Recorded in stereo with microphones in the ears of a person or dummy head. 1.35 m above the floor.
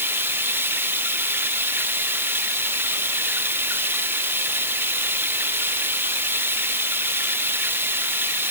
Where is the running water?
10° right (ahead or behind).